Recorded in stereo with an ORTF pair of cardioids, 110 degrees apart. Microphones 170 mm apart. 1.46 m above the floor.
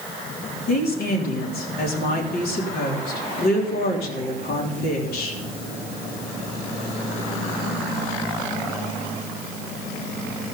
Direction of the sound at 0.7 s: 65° left.